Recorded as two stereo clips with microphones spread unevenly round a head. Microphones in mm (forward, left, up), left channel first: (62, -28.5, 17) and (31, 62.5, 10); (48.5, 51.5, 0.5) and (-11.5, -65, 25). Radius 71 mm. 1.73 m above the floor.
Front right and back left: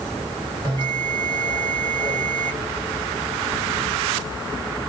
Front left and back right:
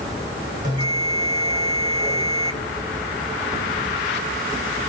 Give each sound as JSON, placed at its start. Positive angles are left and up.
{"t": 0.6, "sound": "a bell", "azimuth_deg": -125, "distance_m": 1.7}